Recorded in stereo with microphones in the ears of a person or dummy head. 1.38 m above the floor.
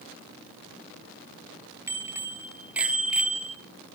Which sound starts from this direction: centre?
A bicycle bell, at 1.9 s.